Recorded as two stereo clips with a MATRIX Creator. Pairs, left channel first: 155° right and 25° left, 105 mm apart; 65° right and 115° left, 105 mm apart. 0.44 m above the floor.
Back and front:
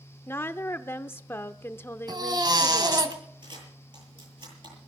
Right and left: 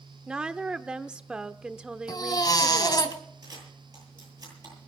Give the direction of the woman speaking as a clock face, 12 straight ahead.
6 o'clock.